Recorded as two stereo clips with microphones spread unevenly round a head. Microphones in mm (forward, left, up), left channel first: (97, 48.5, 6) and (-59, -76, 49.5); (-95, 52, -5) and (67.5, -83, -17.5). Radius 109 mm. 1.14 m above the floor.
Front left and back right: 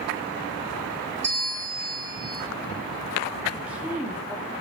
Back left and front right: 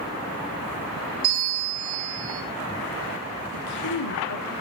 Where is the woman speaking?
130° left, 3 m.